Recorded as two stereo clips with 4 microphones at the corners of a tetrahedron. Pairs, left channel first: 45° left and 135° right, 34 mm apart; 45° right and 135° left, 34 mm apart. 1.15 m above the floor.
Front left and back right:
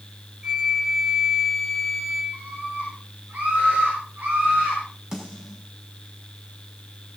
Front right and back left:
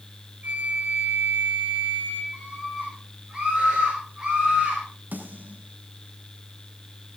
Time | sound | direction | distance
0.4 | a flute | 155° left | 4.5 m
2.3 | a scream | 150° right | 6 m
5.1 | a snare drum | 155° left | 5.5 m